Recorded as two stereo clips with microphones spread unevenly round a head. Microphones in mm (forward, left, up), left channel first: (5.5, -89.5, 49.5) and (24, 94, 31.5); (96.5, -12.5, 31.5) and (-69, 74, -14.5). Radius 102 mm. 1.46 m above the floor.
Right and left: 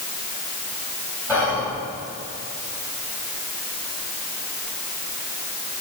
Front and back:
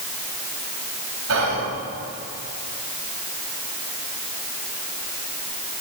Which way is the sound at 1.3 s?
175° right.